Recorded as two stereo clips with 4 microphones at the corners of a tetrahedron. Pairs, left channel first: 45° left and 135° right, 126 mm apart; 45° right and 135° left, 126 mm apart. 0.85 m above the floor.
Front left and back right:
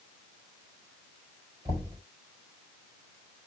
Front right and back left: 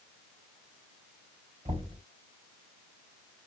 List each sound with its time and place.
1.6 s knocking: 170° left, 3.5 m